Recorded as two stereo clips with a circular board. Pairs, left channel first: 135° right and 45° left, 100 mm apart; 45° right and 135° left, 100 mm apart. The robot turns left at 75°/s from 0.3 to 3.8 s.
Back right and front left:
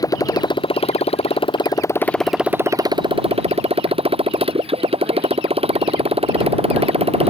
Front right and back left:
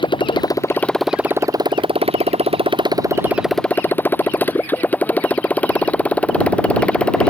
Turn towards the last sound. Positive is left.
turn(degrees=35)